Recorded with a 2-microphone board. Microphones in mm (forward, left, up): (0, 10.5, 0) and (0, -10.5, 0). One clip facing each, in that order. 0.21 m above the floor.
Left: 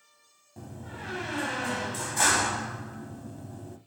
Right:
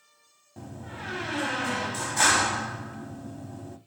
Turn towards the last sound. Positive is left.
turn(degrees=-10)  # may be behind; listen again after turning